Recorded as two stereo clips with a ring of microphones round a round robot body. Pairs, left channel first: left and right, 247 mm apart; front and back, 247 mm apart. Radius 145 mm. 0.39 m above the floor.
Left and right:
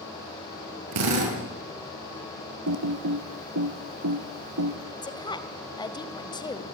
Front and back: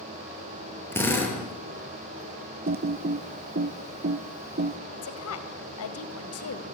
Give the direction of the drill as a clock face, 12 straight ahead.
3 o'clock.